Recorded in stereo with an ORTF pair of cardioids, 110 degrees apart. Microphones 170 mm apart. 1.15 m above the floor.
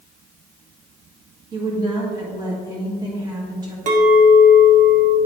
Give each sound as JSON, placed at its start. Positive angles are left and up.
{"t": 1.5, "sound": "a woman speaking", "azimuth_deg": -25, "distance_m": 1.9}
{"t": 3.9, "sound": "a clink", "azimuth_deg": -50, "distance_m": 1.2}